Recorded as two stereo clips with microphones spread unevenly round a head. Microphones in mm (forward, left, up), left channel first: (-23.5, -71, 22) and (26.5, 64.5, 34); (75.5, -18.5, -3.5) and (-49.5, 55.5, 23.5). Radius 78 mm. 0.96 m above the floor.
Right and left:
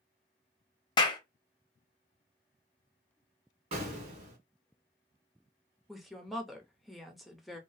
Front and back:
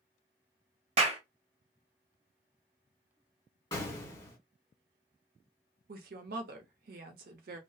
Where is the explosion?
30° left, 1.4 m.